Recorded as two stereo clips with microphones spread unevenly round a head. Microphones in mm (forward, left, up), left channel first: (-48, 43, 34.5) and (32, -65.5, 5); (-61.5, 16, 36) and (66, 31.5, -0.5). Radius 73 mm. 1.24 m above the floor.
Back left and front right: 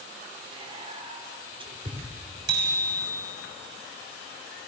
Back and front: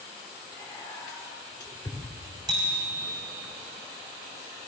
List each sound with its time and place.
0.5 s whispering: 105° right, 3.5 m
2.5 s a bicycle bell: 55° right, 5.5 m